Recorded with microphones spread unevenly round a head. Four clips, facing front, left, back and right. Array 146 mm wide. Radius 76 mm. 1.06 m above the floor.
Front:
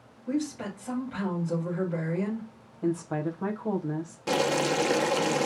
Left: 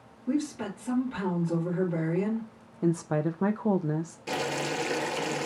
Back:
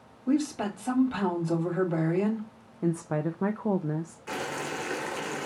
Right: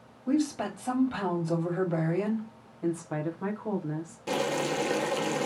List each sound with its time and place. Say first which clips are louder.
0.3 s a woman speaking: right 2 dB, back 4 dB; 140° right, 3 m
2.8 s a woman speaking: left 4 dB, even; 130° left, 0.5 m
4.3 s boiling: right 3 dB, front 10 dB; 10° right, 0.7 m